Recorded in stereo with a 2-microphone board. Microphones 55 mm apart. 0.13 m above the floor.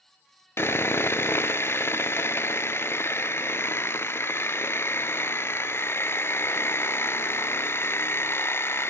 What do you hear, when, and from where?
0.6 s sawing: 50° left (ahead or behind), 0.5 m